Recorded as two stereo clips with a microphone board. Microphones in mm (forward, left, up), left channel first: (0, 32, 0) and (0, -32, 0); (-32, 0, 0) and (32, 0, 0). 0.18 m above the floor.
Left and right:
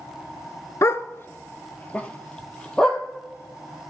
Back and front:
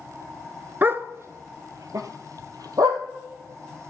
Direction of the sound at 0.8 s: 55° left.